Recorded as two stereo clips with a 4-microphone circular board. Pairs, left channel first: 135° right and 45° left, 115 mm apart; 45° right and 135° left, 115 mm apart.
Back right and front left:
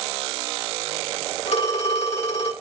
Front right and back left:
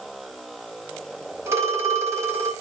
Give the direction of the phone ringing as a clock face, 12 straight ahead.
5 o'clock.